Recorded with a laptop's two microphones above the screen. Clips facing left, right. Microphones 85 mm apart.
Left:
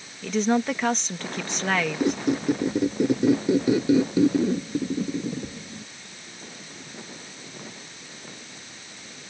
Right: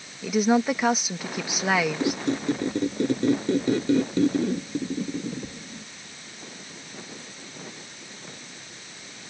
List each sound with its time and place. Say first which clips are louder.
0.2 s a woman speaking: right 2 dB; 10° right (ahead or behind)
2.0 s a squeak: left 2 dB; 10° left (ahead or behind)